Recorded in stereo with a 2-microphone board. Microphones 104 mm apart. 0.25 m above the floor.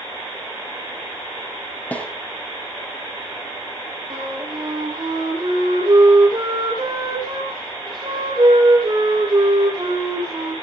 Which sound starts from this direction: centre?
A snare drum, at 1.9 s.